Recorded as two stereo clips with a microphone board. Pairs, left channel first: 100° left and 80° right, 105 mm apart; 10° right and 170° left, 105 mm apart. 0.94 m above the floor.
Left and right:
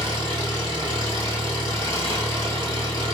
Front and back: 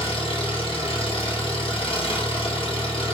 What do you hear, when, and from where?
0.0 s an engine running: 40° right, 1.0 m